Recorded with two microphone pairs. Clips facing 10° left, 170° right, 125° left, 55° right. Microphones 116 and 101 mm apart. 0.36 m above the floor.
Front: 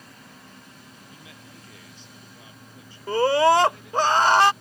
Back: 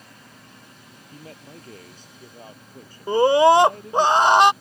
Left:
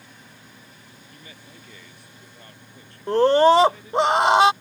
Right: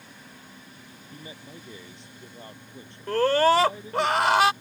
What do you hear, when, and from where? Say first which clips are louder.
1.1 s a man speaking: back 9 dB, right 5 dB; 125° right
3.1 s a scream: back 4 dB, left 5 dB; 150° left